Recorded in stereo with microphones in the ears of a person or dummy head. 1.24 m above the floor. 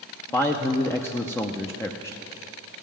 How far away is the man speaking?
About 0.5 m.